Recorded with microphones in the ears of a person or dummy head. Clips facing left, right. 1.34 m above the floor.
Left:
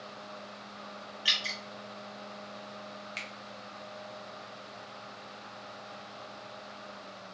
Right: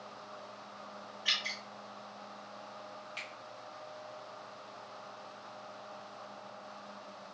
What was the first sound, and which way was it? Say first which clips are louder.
Dripping: left 3 dB; 45° left (ahead or behind).